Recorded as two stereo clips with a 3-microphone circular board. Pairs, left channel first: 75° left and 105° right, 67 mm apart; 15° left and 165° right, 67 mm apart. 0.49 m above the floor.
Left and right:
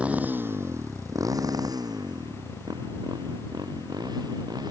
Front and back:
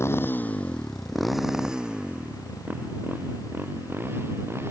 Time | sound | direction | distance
0.0 | a motorcycle | 35° right | ?